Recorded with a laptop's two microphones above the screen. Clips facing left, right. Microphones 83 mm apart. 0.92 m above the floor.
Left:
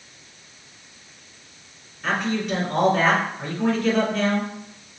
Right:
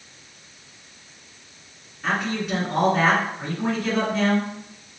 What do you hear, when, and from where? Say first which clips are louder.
2.0 s a man speaking: left 1 dB; 5° right (ahead or behind), 1.8 m